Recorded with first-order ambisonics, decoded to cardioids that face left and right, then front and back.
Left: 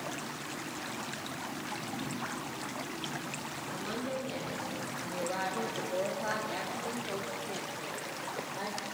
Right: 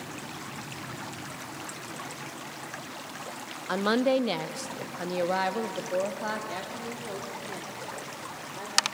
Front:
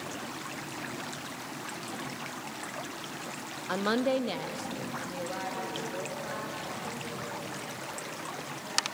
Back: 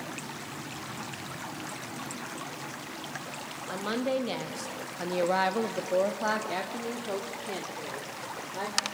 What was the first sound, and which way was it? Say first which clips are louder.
A woman speaking: right 14 dB, front 2 dB; 65° right.